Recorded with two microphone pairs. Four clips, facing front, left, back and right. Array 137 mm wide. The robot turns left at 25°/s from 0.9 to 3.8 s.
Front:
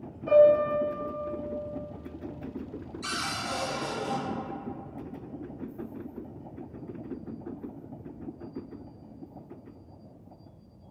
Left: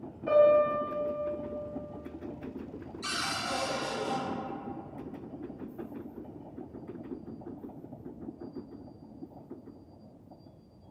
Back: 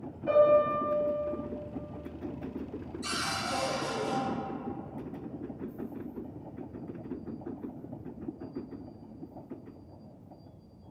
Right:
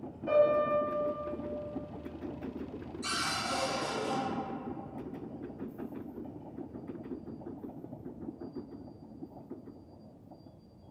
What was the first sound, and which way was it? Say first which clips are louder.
A piano: left 4 dB, front 3 dB; 100° left.